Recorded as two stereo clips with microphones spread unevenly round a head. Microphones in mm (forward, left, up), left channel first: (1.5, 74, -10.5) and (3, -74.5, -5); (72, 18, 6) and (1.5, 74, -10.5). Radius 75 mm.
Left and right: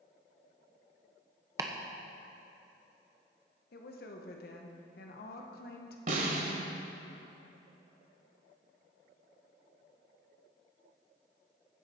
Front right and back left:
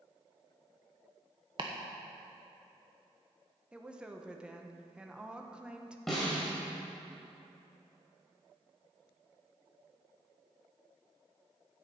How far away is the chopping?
About 0.9 m.